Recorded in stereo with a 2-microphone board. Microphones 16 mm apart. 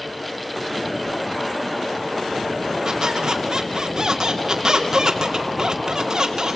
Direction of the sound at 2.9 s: 50° right (ahead or behind).